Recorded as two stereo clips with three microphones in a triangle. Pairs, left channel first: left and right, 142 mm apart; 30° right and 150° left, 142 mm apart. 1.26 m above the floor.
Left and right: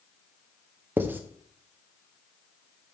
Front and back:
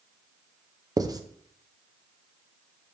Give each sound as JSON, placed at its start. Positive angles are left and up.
{"t": 1.0, "sound": "writing", "azimuth_deg": -160, "distance_m": 0.6}